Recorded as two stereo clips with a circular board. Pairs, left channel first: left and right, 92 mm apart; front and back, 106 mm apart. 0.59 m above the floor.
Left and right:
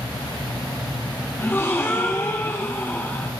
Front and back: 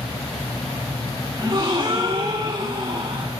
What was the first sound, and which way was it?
A gasp, 145° left.